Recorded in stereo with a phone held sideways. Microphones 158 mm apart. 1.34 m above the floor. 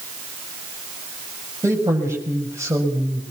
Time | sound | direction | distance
1.6 | a man speaking | 20° right (ahead or behind) | 6 m